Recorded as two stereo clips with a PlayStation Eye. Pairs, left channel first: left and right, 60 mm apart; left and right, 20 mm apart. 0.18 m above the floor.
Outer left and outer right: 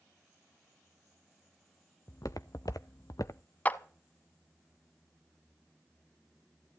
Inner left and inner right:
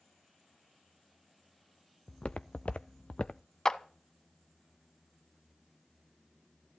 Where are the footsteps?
65° left (ahead or behind), 0.8 m; by 3.4 s 60° left (ahead or behind), 0.8 m.